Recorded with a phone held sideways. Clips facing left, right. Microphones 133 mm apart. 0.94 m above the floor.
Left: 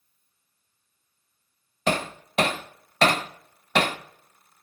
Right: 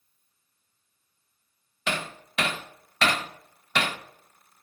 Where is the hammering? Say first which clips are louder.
Left 6 dB; 40° left (ahead or behind), 0.5 m.